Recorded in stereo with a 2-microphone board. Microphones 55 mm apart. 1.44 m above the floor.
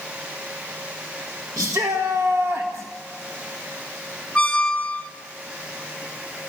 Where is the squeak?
15° left (ahead or behind), 1.4 m.